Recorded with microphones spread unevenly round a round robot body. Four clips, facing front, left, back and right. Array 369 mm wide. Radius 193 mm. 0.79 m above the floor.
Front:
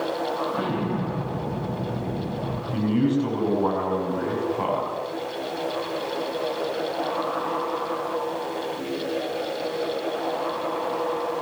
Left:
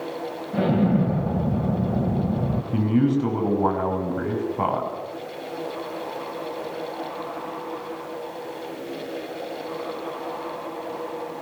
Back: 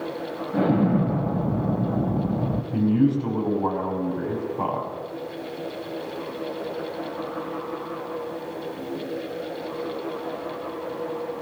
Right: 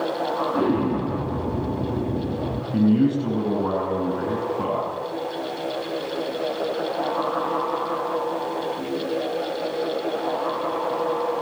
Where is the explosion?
100° left, 1.9 m.